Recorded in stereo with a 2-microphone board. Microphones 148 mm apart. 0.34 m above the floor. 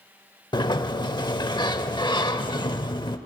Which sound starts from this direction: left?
A sliding door, at 0.5 s.